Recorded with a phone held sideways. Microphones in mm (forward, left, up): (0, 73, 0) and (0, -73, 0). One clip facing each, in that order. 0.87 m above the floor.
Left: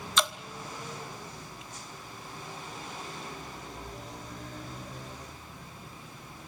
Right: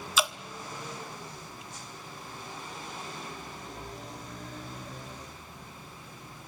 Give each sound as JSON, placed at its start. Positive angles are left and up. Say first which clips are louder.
{"t": 0.2, "sound": "dripping", "louder": "even", "side_deg": -5, "distance_m": 0.6}